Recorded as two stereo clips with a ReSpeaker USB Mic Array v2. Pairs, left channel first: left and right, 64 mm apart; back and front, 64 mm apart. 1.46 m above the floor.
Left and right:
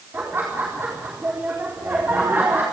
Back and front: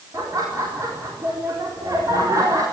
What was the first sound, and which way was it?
Laughter, 35° right.